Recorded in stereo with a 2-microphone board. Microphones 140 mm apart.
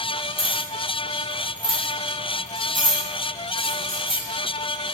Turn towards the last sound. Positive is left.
turn(degrees=-85)